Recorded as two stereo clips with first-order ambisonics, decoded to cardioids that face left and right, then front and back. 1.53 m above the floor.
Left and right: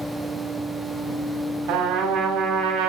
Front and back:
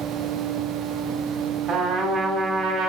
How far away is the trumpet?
About 3 m.